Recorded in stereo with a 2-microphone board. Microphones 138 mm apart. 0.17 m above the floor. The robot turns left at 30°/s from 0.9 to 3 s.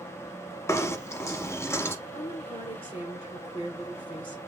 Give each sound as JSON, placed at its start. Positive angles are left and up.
{"t": 0.7, "sound": "knocking", "side_deg": 20, "distance_m": 0.8}
{"t": 2.1, "sound": "a woman speaking", "side_deg": 55, "distance_m": 2.5}